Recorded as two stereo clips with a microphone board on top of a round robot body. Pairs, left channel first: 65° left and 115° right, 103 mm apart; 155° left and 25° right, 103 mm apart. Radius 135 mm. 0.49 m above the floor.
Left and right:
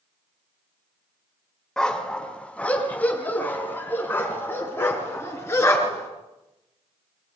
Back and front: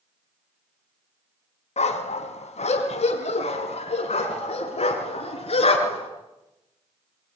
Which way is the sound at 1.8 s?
150° left.